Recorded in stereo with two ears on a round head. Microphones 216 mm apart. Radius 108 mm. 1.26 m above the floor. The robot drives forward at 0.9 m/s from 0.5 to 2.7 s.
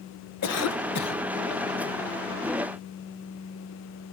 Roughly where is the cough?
Left.